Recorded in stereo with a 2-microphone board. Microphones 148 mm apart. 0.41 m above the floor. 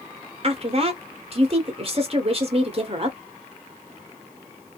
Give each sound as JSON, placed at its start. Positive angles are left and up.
{"t": 0.4, "sound": "a woman speaking", "side_deg": -45, "distance_m": 1.0}